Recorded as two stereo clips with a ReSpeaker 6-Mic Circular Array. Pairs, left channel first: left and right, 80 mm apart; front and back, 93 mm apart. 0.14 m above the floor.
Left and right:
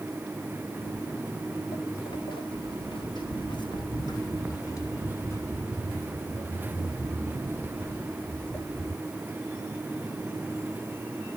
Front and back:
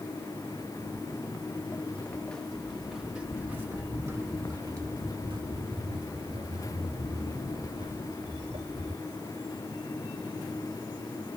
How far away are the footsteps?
About 2.0 m.